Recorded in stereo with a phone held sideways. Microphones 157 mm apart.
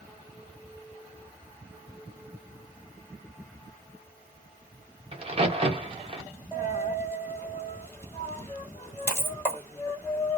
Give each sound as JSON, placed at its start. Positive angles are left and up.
{"t": 5.1, "sound": "a crack", "side_deg": -40, "distance_m": 0.6}
{"t": 6.5, "sound": "a dropped coin", "side_deg": 15, "distance_m": 1.4}